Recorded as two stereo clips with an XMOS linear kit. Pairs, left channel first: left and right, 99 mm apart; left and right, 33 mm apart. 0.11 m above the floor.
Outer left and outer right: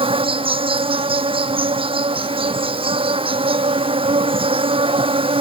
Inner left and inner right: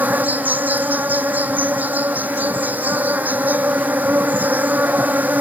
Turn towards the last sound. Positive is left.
turn(degrees=-60)  # may be behind; listen again after turning